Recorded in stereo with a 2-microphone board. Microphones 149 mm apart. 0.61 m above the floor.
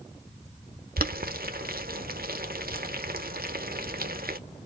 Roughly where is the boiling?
Right.